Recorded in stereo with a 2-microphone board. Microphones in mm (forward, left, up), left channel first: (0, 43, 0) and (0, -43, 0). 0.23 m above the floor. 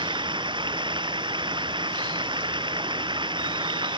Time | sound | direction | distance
0.0 | running water | 70° right (ahead or behind) | ?